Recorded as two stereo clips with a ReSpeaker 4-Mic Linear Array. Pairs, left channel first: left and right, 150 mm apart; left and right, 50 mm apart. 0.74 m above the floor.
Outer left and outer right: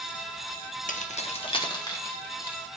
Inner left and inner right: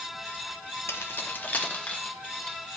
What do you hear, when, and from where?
0.9 s keys jangling: 60° left (ahead or behind), 0.8 m; by 2.6 s 15° left (ahead or behind), 2 m